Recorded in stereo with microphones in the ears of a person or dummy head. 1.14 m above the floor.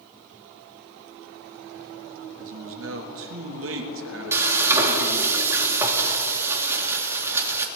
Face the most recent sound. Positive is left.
turn(degrees=-15)  # may be behind; listen again after turning